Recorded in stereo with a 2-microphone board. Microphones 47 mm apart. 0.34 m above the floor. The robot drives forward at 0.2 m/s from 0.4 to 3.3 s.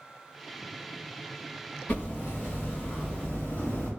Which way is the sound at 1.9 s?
40° left (ahead or behind).